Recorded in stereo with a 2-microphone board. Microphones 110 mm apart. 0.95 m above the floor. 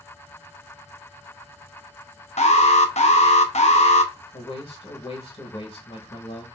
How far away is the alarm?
About 0.6 m.